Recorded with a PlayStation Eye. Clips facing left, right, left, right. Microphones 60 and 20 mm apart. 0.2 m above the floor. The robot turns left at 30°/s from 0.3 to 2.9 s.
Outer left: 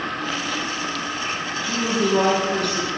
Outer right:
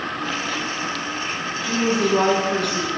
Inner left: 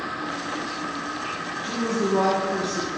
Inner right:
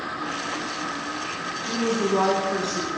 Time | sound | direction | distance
1.6 | a woman speaking | 25° right (ahead or behind) | 1.1 m